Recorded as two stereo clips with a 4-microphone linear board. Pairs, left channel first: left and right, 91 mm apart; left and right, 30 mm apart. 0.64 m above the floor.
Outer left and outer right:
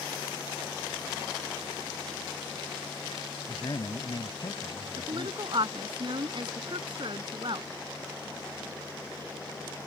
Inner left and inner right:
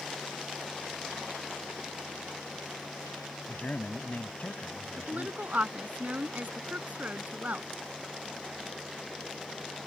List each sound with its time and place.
3.5 s a man speaking: 55° left (ahead or behind)
5.0 s a woman speaking: 60° right (ahead or behind)